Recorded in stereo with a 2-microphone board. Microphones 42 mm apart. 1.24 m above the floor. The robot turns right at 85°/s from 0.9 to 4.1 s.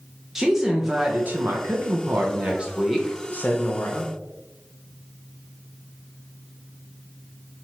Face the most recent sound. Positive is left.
turn(degrees=100)